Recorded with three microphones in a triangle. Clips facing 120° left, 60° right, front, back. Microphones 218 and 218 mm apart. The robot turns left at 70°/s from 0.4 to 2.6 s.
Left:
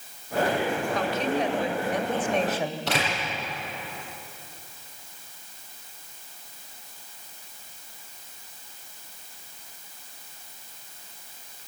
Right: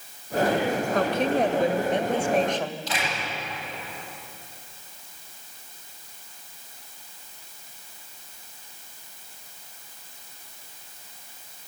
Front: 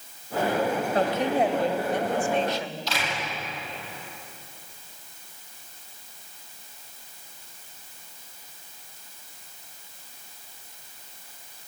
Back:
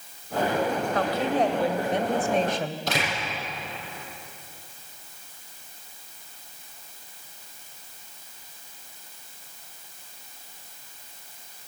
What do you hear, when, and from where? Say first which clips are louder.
0.9 s a woman speaking: right 5 dB, front 2 dB; 50° right, 1.5 m; by 2.8 s 165° right, 1.5 m
2.9 s a door slam: left 3 dB, back 3 dB; 145° left, 8.5 m